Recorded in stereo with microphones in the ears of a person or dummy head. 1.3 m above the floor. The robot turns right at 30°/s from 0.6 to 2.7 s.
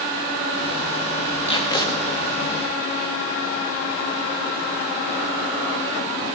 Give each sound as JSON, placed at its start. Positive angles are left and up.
{"t": 1.4, "sound": "tape being pulled", "side_deg": 25, "distance_m": 1.8}